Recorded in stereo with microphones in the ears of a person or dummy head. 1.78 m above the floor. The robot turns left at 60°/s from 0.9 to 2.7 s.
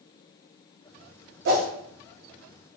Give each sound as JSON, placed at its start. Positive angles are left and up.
{"t": 1.4, "sound": "a whoosh", "side_deg": -55, "distance_m": 0.7}